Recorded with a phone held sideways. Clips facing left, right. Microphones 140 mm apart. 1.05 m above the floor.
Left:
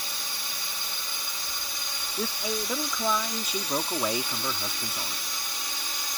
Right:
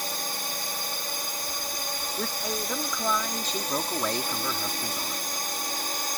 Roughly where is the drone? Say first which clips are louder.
Right 6 dB; right.